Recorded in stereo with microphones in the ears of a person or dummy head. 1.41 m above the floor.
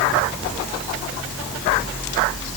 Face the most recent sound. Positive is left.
No sound to turn to.